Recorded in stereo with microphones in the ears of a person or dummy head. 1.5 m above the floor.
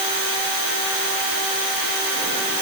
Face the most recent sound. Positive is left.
No sound to turn to.